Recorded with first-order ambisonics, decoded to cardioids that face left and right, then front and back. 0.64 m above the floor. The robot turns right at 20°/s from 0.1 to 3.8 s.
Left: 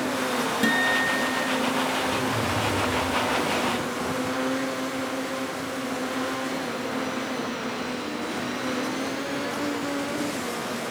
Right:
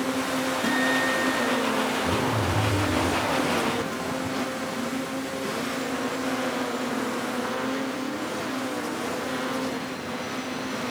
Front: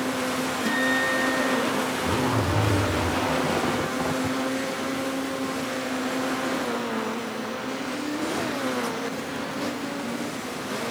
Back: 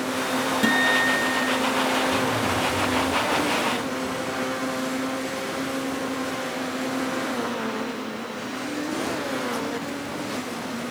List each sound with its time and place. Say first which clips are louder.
0.6 s a guitar: left 2 dB, back 4 dB; 135° left, 5 m; by 1.6 s 155° left, 5 m
2.0 s a zipper: even, back 2 dB; 25° right, 2.5 m; by 4.4 s 10° left, 2.5 m